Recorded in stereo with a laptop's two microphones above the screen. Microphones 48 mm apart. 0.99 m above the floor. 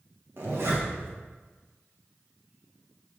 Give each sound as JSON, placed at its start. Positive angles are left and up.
{"t": 0.4, "sound": "a zipper", "side_deg": -60, "distance_m": 1.3}